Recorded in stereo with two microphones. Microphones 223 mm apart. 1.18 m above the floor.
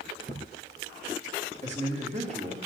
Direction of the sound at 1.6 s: 30° right (ahead or behind).